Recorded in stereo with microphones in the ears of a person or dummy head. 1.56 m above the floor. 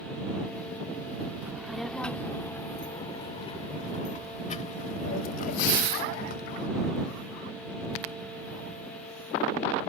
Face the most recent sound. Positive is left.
turn(degrees=50)  # may be behind; listen again after turning